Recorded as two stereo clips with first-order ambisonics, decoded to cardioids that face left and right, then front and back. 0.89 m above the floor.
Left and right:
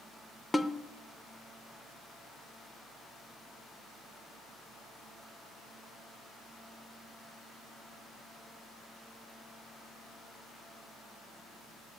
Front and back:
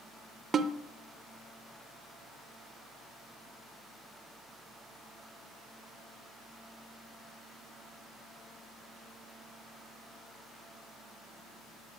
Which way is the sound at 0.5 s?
170° left.